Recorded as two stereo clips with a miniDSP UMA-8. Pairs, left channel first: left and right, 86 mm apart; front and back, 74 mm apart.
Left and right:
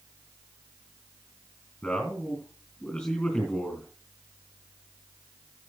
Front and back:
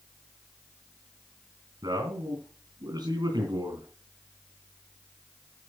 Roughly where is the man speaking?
Behind.